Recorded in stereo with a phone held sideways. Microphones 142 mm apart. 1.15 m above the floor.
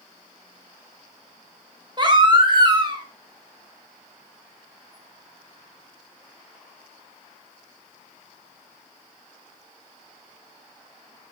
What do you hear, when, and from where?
2.0 s a baby crying: 35° right (ahead or behind), 1.4 m